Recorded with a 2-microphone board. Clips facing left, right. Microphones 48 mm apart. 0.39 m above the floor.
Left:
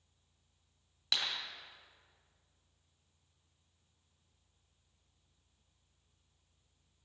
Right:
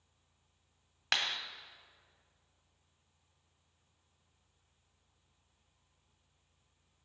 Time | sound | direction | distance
1.1 | a clap | 55° right (ahead or behind) | 1.7 m